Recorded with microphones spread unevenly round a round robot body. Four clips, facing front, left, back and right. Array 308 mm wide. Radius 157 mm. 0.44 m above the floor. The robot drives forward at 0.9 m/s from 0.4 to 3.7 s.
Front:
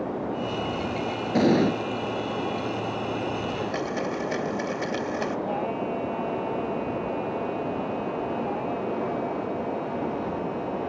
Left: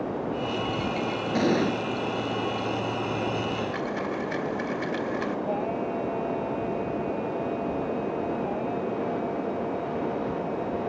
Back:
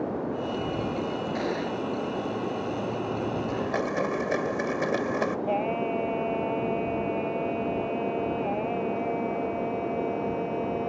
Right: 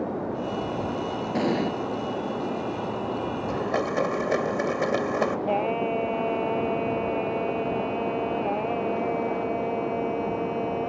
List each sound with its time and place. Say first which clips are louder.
1.4 s an explosion: left 2 dB, front 13 dB; 10° left; by 1.8 s 15° left
3.5 s a blender: right 3 dB, back 1 dB; 110° right; by 5.4 s 115° right
5.5 s singing: right 3 dB, back 1 dB; 110° right